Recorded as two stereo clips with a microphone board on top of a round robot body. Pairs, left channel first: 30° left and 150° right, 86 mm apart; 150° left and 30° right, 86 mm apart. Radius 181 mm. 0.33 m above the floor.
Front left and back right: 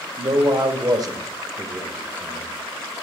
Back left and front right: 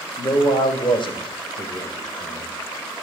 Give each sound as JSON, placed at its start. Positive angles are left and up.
{"t": 0.2, "sound": "a man speaking", "azimuth_deg": 180, "distance_m": 2.0}